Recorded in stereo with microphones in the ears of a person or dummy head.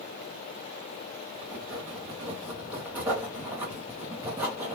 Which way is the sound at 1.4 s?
15° right (ahead or behind).